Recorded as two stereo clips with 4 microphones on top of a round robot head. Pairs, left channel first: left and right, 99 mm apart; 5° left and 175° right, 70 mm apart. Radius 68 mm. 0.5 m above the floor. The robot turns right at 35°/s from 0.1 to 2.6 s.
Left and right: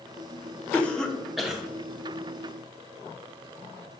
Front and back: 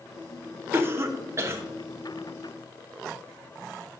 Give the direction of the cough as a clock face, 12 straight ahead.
7 o'clock.